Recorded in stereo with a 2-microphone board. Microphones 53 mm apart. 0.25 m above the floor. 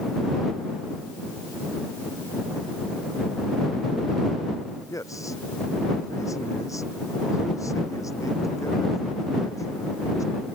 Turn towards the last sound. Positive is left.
turn(degrees=85)